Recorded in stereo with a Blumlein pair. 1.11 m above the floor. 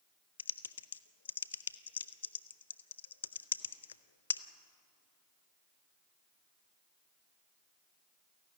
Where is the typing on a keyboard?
65° left, 0.6 m.